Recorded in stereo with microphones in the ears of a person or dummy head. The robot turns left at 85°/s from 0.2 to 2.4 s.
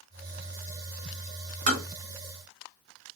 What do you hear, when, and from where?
1.7 s tapping: 45° right (ahead or behind), 1.9 m; by 1.8 s 30° right (ahead or behind), 1.9 m